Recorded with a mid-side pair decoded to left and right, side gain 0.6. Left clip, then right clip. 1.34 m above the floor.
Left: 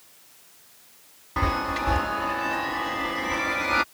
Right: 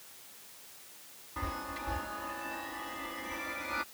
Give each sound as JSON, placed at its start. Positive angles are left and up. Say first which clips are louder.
{"t": 1.4, "sound": "a chime", "louder": "left 13 dB", "azimuth_deg": 60}